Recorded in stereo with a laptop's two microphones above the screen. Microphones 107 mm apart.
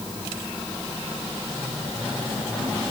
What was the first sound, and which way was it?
Only background noise.